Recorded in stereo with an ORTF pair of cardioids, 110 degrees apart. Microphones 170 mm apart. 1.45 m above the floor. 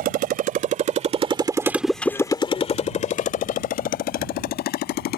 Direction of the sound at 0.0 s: 65° right.